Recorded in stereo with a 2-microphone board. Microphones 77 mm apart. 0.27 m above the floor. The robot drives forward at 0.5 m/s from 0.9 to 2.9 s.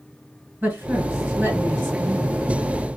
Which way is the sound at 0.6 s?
30° right (ahead or behind).